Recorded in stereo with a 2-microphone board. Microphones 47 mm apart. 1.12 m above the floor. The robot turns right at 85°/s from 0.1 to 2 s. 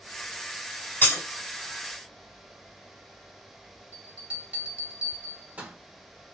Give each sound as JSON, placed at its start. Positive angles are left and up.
{"t": 1.0, "sound": "breaking glass", "side_deg": 40, "distance_m": 1.8}
{"t": 3.9, "sound": "a bell", "side_deg": -30, "distance_m": 1.2}